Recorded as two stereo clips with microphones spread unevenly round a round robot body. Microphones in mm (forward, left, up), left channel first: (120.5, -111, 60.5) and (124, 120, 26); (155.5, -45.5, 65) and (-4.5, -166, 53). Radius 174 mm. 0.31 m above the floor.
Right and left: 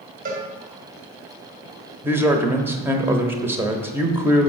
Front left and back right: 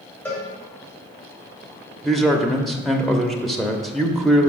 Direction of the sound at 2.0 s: 130° left.